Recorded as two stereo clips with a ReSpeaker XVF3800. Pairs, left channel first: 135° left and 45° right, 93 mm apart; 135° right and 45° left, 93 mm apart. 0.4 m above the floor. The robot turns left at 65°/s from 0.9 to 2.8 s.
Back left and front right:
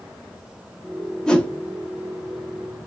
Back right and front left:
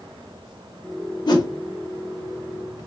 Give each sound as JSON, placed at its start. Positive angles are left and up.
{"t": 1.3, "sound": "a whoosh", "azimuth_deg": -145, "distance_m": 0.7}